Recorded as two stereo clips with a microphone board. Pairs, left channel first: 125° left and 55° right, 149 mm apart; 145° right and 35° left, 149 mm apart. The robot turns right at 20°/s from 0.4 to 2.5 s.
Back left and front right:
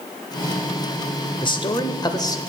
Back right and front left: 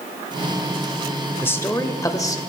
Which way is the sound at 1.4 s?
150° left.